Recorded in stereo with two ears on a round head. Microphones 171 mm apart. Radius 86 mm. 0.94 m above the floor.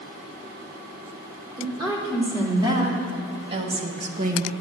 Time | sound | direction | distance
1.6 | a woman speaking | 20° right (ahead or behind) | 3.5 m